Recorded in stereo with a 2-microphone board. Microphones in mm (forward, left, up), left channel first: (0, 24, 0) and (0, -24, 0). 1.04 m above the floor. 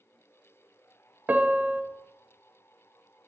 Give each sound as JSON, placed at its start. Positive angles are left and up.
{"t": 1.3, "sound": "a piano", "side_deg": -35, "distance_m": 0.5}